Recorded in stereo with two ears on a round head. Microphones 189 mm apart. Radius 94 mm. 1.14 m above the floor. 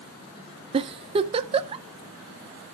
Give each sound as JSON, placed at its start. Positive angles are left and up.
{"t": 0.7, "sound": "a giggle", "side_deg": -25, "distance_m": 0.6}